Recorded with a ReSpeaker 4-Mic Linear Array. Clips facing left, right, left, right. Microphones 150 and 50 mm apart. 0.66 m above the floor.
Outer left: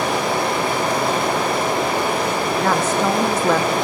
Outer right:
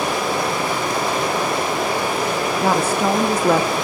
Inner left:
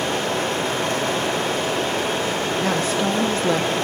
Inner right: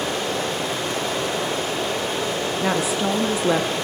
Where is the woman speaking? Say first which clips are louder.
Outer right 1 dB, even; 10° right (ahead or behind), 0.5 m.